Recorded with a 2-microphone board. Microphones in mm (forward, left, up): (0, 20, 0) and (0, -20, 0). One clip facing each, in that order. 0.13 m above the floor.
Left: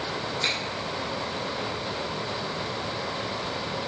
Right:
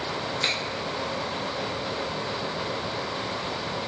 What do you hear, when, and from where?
0.4 s a finger snap: 10° right (ahead or behind), 1.2 m